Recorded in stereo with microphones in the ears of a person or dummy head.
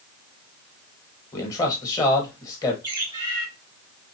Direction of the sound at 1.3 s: 15° left (ahead or behind).